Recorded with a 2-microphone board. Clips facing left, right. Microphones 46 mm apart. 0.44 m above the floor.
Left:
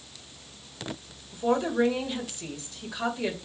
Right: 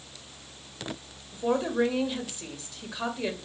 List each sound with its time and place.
1.3 s a woman speaking: 5° right (ahead or behind), 2 m